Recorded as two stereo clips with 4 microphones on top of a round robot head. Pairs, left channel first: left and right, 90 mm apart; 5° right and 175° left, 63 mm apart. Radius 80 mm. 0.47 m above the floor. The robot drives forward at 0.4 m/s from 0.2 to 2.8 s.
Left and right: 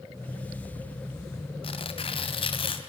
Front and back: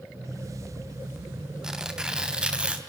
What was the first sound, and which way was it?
Tearing paper, 95° left.